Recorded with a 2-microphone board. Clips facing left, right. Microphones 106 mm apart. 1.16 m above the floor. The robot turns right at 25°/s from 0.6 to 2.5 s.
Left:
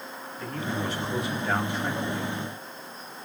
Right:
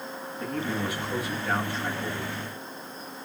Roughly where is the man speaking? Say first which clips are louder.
Right 1 dB; ahead.